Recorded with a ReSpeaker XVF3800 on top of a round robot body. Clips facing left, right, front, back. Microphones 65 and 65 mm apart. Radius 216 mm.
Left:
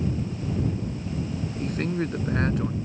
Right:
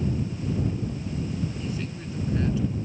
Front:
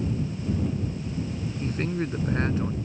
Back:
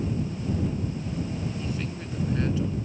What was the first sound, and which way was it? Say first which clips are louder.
A man speaking: left 6 dB, front 5 dB; 50° left.